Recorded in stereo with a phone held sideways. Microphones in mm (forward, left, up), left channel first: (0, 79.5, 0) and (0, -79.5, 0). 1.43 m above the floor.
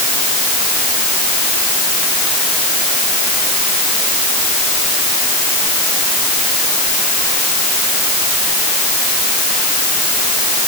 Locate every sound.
Only background noise.